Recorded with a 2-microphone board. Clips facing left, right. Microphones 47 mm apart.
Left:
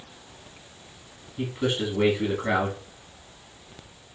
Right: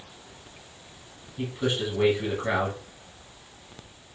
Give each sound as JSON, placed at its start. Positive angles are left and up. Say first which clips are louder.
{"t": 1.4, "sound": "a man speaking", "louder": "left 1 dB", "side_deg": 15, "distance_m": 1.3}